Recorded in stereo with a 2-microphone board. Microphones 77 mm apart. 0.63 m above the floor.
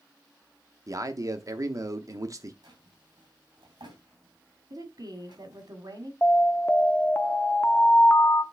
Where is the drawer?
80° right, 2.5 m.